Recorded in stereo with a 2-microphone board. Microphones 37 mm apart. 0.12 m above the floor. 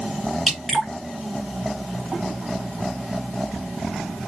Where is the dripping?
5° left (ahead or behind), 1.5 m.